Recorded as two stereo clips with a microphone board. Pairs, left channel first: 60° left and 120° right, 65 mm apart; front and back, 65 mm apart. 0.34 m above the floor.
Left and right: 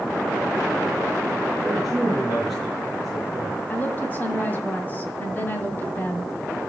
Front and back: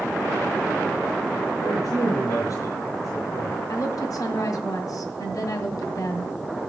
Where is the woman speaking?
5° left, 1.9 m.